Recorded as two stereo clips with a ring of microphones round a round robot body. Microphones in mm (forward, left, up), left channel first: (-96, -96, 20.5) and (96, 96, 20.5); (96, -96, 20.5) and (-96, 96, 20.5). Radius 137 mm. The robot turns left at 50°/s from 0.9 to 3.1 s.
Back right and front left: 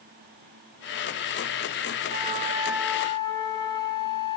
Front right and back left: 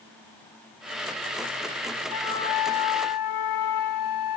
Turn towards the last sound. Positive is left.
turn(degrees=-60)